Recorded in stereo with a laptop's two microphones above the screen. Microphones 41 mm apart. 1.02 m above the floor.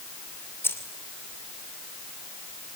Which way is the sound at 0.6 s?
70° left (ahead or behind).